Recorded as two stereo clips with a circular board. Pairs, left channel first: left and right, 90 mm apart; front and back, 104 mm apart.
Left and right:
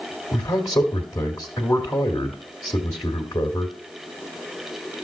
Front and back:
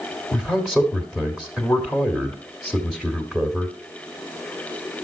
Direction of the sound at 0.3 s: 95° left.